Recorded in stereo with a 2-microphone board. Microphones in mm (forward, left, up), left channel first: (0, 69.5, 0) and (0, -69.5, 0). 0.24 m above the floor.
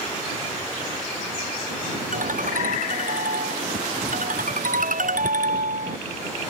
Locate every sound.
2.1 s a ringtone: 75° right (ahead or behind)